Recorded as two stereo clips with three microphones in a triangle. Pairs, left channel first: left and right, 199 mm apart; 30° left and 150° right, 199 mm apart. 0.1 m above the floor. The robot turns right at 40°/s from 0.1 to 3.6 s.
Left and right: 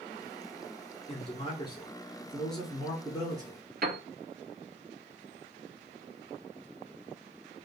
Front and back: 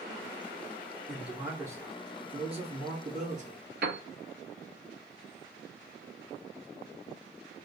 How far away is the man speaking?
About 1.3 m.